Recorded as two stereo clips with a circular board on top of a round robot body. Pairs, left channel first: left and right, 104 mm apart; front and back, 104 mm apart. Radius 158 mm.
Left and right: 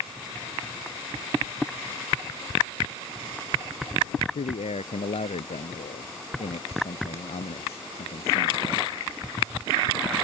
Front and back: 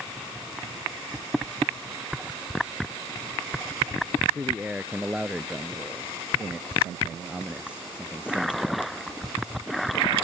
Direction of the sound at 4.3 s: 100° left.